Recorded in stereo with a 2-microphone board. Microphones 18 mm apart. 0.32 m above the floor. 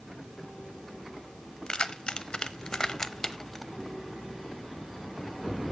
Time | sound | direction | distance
1.7 | keys jangling | 50° left (ahead or behind) | 0.9 m